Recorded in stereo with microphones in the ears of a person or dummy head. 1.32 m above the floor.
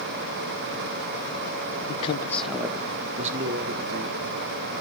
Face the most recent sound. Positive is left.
turn(degrees=-55)  # may be behind; listen again after turning